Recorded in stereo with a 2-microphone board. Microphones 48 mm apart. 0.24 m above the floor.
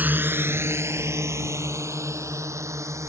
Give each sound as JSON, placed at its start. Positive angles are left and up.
{"t": 0.0, "sound": "a drone", "side_deg": -35}